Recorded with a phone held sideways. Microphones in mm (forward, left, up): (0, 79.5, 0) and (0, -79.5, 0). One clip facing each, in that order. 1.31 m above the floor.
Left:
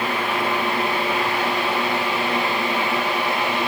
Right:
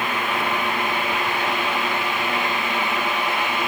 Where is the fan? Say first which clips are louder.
Left 2 dB; 35° left (ahead or behind), 6 m.